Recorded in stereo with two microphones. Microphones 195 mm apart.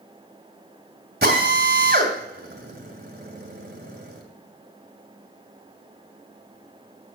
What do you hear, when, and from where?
1.2 s a drill: 55° right (ahead or behind), 2.5 m